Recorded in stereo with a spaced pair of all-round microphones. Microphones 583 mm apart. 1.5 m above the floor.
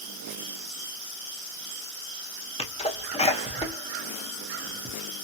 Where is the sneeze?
10° left (ahead or behind), 0.9 m.